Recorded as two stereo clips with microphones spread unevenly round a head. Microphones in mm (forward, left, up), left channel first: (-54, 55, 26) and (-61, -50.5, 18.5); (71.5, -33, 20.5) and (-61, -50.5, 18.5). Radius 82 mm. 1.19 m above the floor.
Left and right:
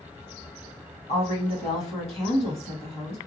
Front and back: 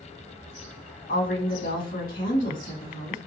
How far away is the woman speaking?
About 2.5 m.